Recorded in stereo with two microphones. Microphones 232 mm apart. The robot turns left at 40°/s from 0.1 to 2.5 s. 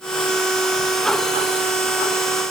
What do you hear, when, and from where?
Only background noise.